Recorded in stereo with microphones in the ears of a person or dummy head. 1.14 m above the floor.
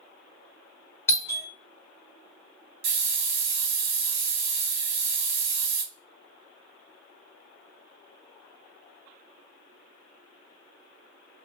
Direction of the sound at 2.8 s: 55° right (ahead or behind).